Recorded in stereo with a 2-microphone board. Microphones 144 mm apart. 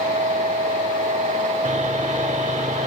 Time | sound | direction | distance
1.6 | sawing | 55° right (ahead or behind) | ?